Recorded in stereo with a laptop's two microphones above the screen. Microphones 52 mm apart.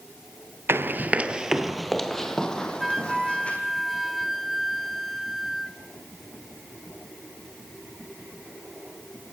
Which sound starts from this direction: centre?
A flute, at 2.8 s.